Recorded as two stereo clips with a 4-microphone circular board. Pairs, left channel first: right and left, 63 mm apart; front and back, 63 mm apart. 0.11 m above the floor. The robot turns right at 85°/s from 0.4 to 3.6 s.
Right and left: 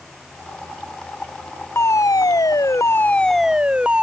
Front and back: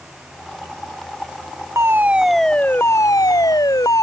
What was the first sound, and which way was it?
A fire alarm, 140° right.